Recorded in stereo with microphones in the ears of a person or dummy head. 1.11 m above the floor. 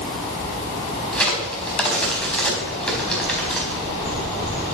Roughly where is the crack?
Centre.